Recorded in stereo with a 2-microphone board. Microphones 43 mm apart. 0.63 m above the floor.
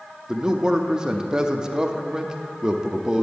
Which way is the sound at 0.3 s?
15° right (ahead or behind).